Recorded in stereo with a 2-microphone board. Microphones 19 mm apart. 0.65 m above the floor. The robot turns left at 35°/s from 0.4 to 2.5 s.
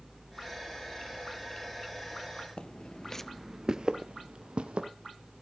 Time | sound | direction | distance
2.6 | footsteps | 55° left (ahead or behind) | 1.0 m